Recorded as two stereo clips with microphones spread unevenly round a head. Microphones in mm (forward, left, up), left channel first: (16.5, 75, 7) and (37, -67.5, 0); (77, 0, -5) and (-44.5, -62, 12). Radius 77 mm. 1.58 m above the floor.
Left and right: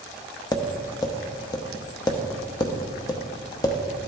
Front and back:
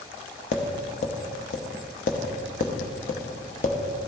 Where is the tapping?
50° left, 1.0 m.